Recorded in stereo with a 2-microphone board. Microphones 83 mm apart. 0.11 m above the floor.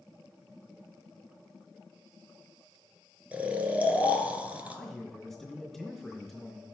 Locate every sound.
3.3 s snoring: 20° right (ahead or behind), 0.7 m
4.7 s a man speaking: centre (ahead or behind), 2.5 m